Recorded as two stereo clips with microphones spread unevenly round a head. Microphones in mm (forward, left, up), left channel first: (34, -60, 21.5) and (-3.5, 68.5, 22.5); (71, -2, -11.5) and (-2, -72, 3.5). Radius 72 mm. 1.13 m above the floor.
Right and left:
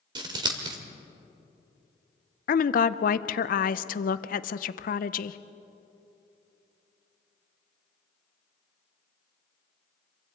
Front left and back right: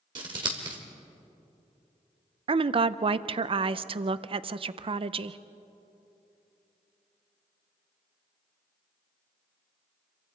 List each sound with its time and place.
0.1 s scissors: 170° left, 1.7 m
2.5 s a woman speaking: 100° right, 0.5 m